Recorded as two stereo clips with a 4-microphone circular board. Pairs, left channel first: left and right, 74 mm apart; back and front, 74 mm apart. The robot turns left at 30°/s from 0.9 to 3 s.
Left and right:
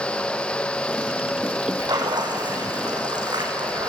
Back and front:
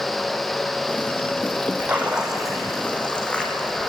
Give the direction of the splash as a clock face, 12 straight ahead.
2 o'clock.